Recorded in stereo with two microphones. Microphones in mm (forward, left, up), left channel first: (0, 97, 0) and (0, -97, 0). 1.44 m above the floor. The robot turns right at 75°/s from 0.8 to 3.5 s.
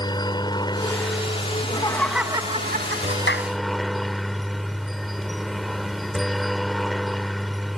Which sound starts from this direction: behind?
A helicopter, at 0.0 s.